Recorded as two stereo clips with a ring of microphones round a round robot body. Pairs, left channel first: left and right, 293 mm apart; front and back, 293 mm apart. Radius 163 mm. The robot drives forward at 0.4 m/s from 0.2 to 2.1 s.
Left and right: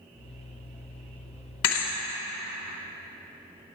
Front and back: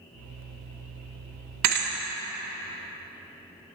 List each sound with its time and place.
1.6 s a thud: 135° left, 0.9 m; by 1.9 s 140° left, 1.0 m